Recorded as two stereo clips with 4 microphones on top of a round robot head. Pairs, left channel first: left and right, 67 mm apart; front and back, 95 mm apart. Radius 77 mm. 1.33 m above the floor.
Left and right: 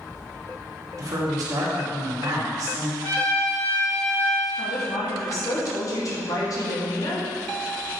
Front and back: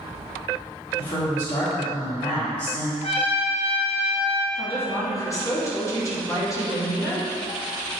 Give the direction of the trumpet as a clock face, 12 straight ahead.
11 o'clock.